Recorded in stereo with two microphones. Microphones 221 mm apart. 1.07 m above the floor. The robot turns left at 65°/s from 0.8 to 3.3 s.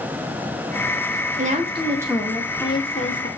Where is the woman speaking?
120° right, 0.6 m; by 3.3 s 115° left, 0.6 m.